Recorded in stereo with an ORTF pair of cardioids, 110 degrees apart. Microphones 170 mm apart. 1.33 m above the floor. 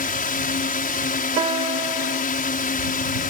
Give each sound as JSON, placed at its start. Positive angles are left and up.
{"t": 0.0, "sound": "a drone", "azimuth_deg": 60}
{"t": 1.4, "sound": "a piano", "azimuth_deg": -35}